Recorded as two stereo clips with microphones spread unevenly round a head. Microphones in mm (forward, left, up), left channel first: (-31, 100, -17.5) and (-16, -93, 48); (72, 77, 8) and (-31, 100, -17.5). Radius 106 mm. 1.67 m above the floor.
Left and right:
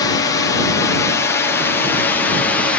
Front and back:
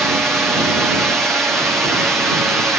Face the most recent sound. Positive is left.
turn(degrees=105)